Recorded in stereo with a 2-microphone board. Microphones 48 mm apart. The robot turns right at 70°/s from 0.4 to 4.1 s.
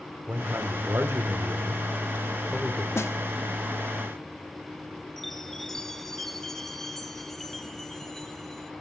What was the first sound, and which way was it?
A man speaking, 145° right.